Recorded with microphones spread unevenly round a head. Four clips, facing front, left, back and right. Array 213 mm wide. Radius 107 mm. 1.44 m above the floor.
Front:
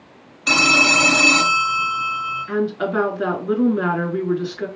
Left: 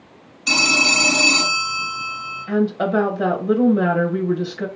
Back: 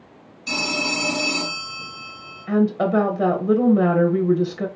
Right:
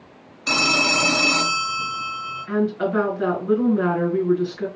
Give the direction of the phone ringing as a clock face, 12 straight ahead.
12 o'clock.